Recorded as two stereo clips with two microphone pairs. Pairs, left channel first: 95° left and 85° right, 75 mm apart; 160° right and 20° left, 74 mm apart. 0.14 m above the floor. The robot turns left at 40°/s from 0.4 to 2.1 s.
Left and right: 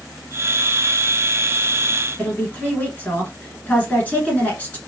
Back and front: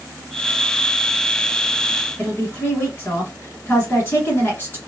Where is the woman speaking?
155° left, 1.4 m.